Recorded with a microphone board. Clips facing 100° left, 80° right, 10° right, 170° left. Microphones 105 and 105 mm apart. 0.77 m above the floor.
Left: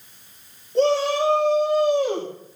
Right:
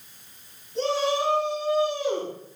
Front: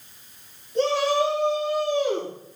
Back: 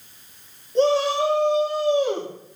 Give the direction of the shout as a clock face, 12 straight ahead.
8 o'clock.